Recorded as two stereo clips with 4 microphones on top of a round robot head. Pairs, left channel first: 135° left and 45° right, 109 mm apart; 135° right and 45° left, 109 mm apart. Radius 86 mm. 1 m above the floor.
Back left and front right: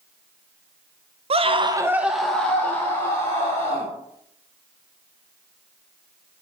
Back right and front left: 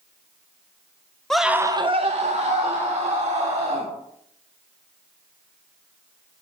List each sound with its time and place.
1.3 s a scream: 50° right, 0.9 m; by 3.9 s 75° left, 3.5 m